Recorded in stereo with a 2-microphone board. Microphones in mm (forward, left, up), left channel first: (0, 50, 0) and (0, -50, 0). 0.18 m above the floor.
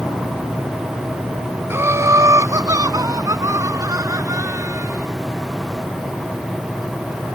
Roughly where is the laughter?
Right.